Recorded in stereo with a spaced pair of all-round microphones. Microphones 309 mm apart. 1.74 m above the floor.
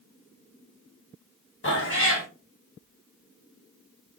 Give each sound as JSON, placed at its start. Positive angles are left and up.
{"t": 1.6, "sound": "a cat meowing", "side_deg": 40, "distance_m": 1.2}